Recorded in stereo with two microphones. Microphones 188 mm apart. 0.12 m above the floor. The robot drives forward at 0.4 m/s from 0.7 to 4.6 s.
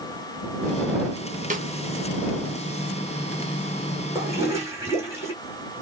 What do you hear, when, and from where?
1.5 s a snare drum: 45° right (ahead or behind), 0.8 m; by 1.7 s 40° right (ahead or behind), 0.9 m
4.2 s a toilet flushing: 15° right (ahead or behind), 2 m